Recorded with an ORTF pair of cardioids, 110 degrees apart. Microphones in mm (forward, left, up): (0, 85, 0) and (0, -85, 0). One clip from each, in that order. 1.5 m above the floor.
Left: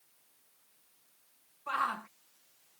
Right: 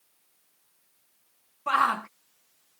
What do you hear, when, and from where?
1.7 s a shout: 45° right